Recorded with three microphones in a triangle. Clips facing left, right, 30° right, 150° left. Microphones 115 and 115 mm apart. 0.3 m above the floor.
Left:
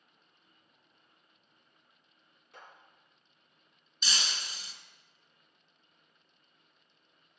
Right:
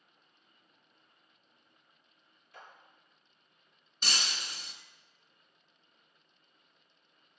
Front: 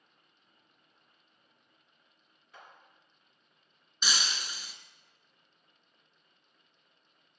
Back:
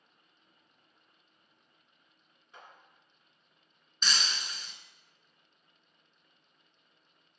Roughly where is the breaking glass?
Right.